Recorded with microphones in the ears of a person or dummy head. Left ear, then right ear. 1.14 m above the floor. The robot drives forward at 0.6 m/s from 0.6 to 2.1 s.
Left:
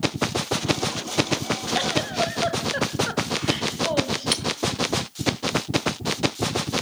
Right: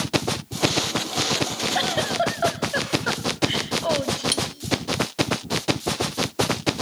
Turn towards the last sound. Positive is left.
turn(degrees=5)  # may be behind; listen again after turning